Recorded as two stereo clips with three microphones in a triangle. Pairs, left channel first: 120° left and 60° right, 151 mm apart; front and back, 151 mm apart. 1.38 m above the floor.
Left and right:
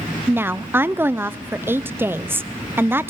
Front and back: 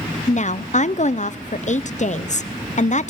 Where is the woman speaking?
15° left, 0.6 m.